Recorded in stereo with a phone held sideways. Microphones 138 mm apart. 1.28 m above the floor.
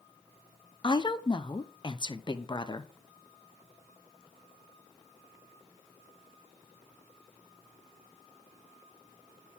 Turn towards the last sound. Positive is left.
turn(degrees=35)  # may be behind; listen again after turning